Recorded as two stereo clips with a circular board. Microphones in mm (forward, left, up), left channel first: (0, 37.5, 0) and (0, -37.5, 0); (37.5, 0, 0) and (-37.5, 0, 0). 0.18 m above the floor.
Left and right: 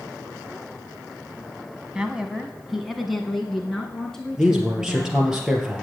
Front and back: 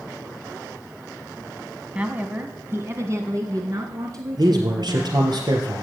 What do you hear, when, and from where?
1.9 s a woman speaking: 145° right, 1.1 m; by 5.4 s 170° left, 2.5 m
4.4 s a man speaking: 170° right, 3 m